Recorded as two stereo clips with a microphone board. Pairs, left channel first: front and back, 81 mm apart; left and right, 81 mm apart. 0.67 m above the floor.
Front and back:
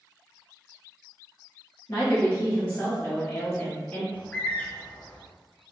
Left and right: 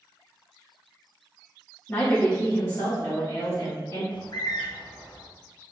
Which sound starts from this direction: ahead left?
A woman speaking, at 1.9 s.